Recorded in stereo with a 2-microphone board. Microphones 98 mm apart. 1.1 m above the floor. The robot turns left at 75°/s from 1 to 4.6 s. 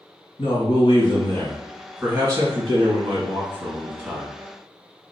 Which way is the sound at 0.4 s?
60° left.